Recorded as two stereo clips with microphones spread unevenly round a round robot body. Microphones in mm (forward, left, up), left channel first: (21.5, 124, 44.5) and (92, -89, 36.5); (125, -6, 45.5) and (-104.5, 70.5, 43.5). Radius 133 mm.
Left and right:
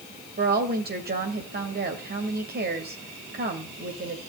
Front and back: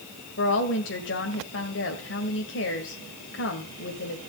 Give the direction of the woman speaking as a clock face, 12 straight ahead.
1 o'clock.